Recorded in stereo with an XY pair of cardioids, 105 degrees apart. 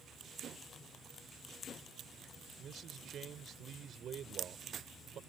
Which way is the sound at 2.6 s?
55° right.